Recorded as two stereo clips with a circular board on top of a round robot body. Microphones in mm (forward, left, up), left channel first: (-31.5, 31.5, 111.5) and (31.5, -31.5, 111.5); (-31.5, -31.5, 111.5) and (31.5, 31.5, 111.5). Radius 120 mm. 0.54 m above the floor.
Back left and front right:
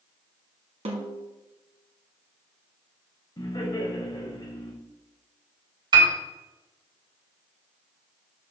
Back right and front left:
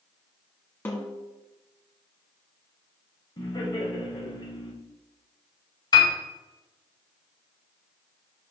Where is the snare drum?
65° right, 1.4 m.